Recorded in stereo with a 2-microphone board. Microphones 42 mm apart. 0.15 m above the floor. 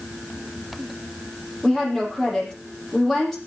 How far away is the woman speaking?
About 5.5 m.